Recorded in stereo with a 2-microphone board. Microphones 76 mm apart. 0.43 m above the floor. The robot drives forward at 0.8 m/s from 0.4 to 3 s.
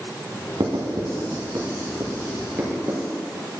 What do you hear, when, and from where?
0.6 s writing: 85° right, 1.2 m; by 3.0 s 30° right (ahead or behind), 2.5 m